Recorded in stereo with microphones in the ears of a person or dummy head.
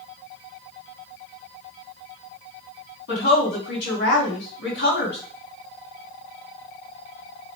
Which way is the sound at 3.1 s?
70° left (ahead or behind).